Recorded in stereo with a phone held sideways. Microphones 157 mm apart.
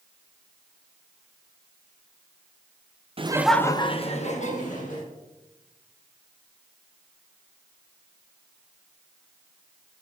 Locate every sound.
3.2 s laughter: 40° right (ahead or behind), 0.6 m; by 5.1 s 60° left (ahead or behind), 2 m